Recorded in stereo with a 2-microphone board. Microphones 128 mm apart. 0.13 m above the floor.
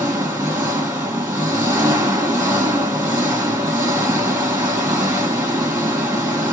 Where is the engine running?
20° right (ahead or behind), 1.5 m.